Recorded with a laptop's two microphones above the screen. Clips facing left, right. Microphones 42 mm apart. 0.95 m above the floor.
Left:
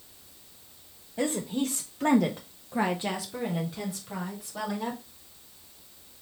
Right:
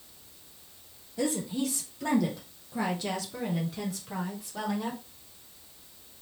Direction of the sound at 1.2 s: 30° left (ahead or behind).